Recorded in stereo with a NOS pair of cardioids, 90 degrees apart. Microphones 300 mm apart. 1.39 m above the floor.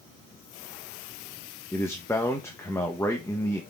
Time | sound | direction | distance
1.7 | a man speaking | 10° left | 1.2 m